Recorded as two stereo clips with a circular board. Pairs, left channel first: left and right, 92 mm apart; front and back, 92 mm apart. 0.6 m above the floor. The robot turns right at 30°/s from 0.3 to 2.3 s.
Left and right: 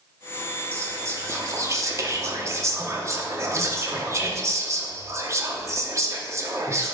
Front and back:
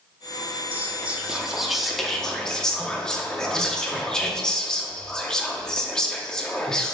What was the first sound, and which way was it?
Whispering, 125° right.